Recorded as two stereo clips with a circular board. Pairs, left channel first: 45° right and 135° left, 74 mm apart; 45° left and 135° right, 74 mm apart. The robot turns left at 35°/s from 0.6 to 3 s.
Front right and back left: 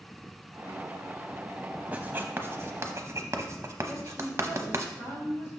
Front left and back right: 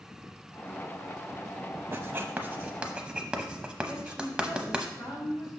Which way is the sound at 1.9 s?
170° right.